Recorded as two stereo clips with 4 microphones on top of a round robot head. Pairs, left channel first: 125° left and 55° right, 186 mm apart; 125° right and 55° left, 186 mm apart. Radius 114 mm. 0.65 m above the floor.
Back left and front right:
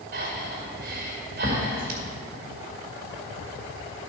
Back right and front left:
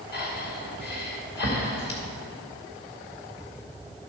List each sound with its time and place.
0.1 s breathing: 95° right, 2.5 m